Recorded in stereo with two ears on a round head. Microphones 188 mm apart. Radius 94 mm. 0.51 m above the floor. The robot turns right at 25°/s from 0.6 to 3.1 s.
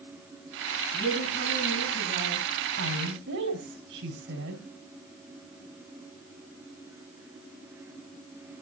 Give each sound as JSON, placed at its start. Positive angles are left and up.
{"t": 0.9, "sound": "a woman speaking", "azimuth_deg": 10, "distance_m": 6.5}
{"t": 2.8, "sound": "a woman speaking", "side_deg": -65, "distance_m": 3.0}